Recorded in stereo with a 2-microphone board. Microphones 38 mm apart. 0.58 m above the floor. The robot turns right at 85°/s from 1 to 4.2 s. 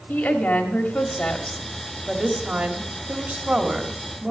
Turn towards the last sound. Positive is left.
turn(degrees=20)